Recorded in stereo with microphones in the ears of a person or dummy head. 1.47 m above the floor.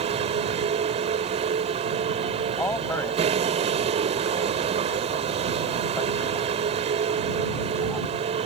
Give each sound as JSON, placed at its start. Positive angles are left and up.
{"t": 0.0, "sound": "a vehicle", "side_deg": -35}
{"t": 2.6, "sound": "a man speaking", "side_deg": 15}